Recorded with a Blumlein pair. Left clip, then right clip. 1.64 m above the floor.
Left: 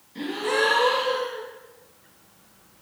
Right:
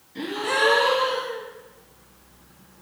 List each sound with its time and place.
0.1 s a gasp: 5° right, 0.6 m